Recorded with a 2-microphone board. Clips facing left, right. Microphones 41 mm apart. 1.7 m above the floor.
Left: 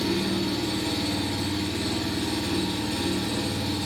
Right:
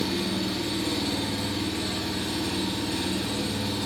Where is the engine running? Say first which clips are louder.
Left 2 dB; 10° right (ahead or behind), 1.0 m.